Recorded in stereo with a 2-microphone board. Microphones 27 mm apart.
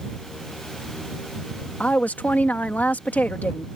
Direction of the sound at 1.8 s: 80° left.